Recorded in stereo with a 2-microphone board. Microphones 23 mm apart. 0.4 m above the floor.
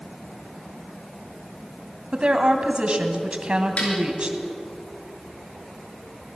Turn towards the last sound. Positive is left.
turn(degrees=70)  # may be behind; listen again after turning